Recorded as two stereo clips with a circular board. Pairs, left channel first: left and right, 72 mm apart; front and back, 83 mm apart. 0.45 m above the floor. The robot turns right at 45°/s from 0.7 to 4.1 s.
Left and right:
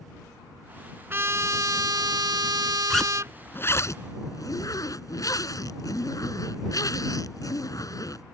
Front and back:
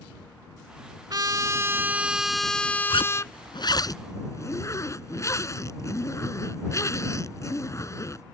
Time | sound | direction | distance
1.1 | a trumpet | 145° right | ?
2.9 | a zipper | straight ahead | ?